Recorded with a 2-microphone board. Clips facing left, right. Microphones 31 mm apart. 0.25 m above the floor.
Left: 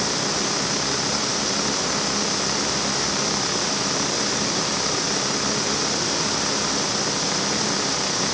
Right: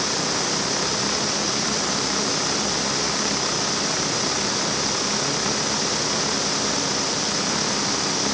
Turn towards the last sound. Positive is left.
No sound to turn to.